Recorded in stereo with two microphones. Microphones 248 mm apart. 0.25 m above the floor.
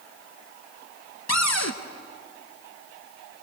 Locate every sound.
1.3 s a cupboard door: 80° left, 1.0 m